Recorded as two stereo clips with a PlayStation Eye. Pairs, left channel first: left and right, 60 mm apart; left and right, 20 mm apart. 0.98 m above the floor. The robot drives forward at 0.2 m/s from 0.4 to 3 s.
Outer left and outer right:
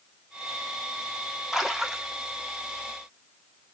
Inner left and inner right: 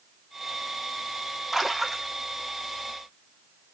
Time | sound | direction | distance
1.5 | a splash | 5° right (ahead or behind) | 0.6 m